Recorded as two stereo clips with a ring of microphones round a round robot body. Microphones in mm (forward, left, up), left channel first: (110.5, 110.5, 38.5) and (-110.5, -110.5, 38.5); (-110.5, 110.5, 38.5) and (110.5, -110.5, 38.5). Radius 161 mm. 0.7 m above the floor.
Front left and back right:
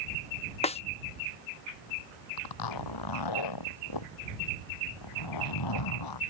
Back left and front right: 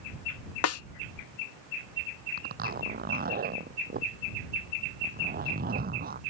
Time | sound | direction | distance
0.6 | a snare drum | 110° left | ?
2.4 | a zipper | 20° left | ?